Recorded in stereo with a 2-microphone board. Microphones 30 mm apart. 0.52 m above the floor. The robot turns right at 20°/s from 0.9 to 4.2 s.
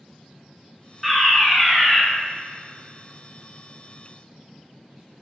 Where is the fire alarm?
Centre (ahead or behind), 2.0 m; by 2.0 s 10° left (ahead or behind), 2.0 m.